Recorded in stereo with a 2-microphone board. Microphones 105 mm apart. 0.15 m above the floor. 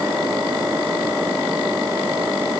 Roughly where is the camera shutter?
No camera shutter in this recording.